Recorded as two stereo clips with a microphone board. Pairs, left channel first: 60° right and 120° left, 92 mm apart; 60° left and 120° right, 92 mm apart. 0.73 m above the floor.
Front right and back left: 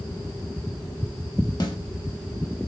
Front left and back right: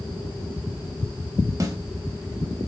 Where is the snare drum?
80° right, 0.9 m.